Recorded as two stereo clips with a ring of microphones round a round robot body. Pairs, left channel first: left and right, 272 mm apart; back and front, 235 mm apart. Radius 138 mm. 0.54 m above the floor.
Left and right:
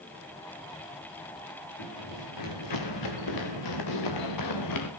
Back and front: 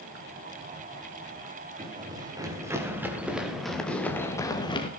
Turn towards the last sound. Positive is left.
turn(degrees=115)